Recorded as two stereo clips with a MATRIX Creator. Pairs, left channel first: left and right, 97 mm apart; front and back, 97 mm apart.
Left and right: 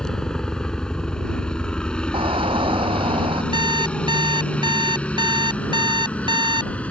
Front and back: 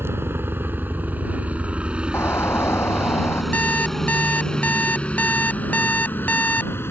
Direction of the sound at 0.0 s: 165° left.